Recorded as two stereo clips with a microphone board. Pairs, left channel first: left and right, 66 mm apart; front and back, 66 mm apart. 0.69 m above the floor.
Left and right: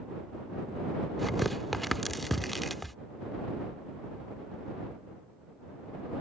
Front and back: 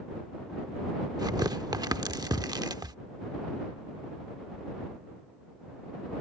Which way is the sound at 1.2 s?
Straight behind.